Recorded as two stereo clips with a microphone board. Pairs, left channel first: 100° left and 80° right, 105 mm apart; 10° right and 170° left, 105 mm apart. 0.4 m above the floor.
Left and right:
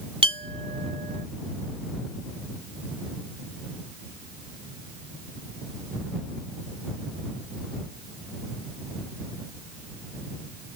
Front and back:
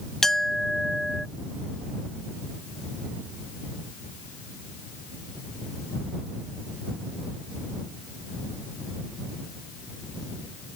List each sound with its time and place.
0.2 s a clink: 95° right